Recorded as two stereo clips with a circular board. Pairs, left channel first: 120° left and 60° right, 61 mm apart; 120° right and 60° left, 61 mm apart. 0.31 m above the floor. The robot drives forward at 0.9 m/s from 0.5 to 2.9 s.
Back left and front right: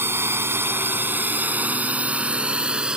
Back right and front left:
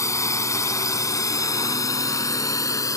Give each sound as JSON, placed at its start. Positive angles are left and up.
{"t": 0.0, "sound": "a drone", "azimuth_deg": -105}